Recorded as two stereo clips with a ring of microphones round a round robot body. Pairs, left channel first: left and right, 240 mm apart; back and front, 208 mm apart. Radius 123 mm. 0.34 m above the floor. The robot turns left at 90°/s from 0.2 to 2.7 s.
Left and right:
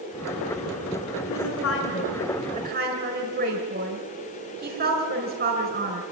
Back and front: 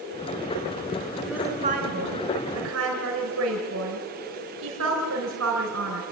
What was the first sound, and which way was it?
A woman speaking, 95° left.